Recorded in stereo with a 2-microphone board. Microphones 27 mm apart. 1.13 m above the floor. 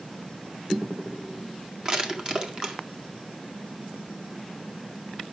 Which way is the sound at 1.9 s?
30° right (ahead or behind).